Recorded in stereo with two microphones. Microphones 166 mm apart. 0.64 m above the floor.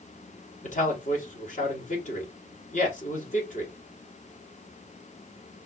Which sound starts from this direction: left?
A man speaking, at 0.6 s.